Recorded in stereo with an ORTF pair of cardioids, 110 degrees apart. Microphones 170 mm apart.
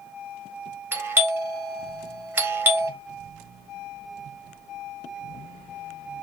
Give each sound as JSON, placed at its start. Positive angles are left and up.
{"t": 0.9, "sound": "a doorbell", "azimuth_deg": -10, "distance_m": 0.9}